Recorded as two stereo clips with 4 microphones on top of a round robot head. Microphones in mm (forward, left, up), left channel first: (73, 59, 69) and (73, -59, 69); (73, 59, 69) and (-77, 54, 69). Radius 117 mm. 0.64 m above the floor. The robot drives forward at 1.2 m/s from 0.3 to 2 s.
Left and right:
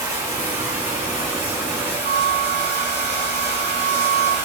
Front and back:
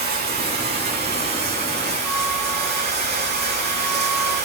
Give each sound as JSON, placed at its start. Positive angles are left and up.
{"t": 0.0, "sound": "running water", "azimuth_deg": -160, "distance_m": 7.0}
{"t": 2.0, "sound": "a flute", "azimuth_deg": -85, "distance_m": 2.5}